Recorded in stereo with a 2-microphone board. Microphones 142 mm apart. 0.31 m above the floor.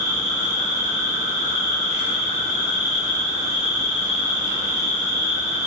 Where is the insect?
45° right (ahead or behind), 1.0 m.